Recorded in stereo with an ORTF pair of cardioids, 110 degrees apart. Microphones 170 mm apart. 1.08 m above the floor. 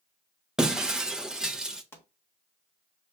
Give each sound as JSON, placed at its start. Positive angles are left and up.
{"t": 0.6, "sound": "breaking glass", "azimuth_deg": -5, "distance_m": 0.6}
{"t": 1.9, "sound": "a pop", "azimuth_deg": 15, "distance_m": 1.2}